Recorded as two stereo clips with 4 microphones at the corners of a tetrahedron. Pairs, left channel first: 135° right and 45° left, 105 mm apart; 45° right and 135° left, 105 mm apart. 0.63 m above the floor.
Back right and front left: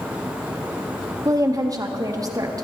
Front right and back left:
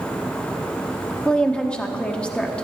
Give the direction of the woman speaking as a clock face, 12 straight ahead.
11 o'clock.